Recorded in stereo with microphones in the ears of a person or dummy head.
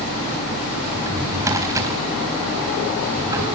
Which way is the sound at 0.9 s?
20° right (ahead or behind).